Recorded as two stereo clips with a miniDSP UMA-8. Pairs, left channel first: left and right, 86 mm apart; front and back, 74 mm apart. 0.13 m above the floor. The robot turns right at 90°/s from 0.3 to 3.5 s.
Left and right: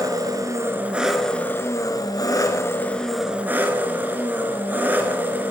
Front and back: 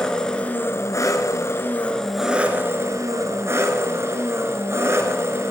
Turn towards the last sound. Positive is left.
turn(degrees=-145)